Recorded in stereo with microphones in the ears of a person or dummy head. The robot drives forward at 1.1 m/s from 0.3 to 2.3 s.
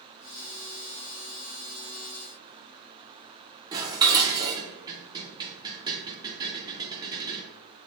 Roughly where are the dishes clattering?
Right.